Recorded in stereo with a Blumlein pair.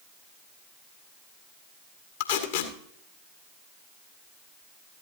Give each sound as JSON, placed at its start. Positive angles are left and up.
{"t": 2.2, "sound": "tape being pulled", "azimuth_deg": 60, "distance_m": 1.7}